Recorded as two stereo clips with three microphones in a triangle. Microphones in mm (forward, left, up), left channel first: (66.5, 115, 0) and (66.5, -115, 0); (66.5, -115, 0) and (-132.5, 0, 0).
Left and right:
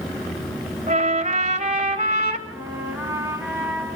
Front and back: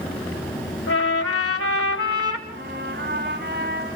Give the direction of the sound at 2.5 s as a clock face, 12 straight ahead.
6 o'clock.